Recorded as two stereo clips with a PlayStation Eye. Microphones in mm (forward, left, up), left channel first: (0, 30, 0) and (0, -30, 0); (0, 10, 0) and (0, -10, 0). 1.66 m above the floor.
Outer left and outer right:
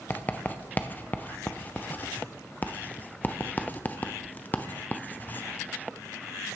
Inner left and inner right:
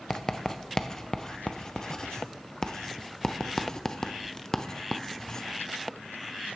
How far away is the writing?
About 0.6 m.